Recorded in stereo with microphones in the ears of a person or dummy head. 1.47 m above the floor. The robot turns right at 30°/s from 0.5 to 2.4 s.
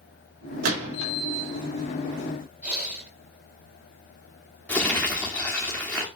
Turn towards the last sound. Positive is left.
turn(degrees=5)  # may be behind; listen again after turning